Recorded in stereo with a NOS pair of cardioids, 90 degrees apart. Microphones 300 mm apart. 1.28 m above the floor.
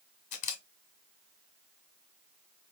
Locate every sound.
0.3 s a camera shutter: 65° left, 1.5 m